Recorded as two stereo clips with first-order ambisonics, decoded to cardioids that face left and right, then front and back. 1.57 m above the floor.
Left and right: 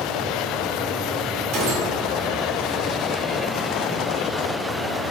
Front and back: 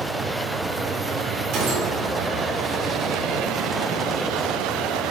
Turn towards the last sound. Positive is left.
turn(degrees=-130)